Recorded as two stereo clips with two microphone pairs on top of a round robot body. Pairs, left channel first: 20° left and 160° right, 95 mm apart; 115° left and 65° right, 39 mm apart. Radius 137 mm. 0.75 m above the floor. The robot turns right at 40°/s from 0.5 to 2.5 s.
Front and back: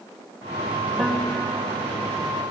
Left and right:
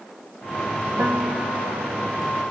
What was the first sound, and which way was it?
A piano, 75° right.